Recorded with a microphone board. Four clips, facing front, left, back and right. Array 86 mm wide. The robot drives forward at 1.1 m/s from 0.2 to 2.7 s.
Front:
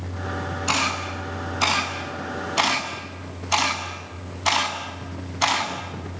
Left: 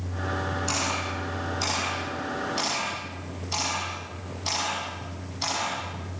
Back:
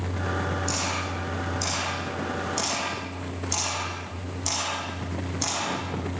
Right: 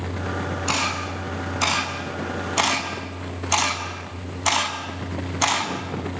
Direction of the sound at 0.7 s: 30° right.